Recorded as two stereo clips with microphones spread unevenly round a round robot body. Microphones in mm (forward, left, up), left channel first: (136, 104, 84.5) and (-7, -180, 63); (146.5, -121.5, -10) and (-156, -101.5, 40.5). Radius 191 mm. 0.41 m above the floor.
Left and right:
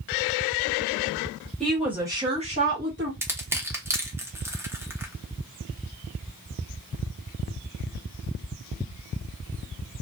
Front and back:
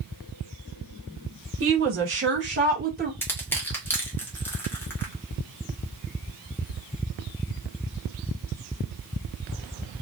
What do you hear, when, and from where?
1.6 s a woman speaking: 155° left, 1.2 m; by 3.1 s 125° right, 1.3 m
3.2 s crushing: 55° right, 0.9 m